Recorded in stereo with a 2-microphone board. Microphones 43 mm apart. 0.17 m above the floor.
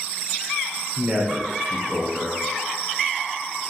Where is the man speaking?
5° right (ahead or behind), 1.2 m.